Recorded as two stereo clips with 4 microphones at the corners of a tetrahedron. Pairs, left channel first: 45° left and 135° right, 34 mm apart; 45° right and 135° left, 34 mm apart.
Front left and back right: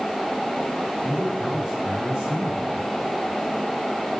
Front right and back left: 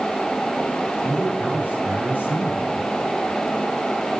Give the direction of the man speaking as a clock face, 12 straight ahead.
7 o'clock.